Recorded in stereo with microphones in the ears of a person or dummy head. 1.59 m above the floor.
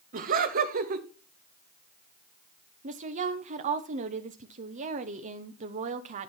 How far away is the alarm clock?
No alarm clock in this recording.